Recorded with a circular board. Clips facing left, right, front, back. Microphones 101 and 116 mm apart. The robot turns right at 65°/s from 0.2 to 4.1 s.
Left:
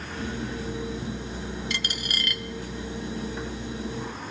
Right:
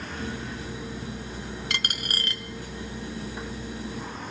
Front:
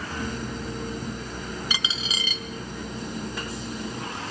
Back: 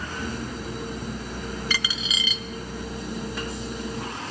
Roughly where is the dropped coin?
Right.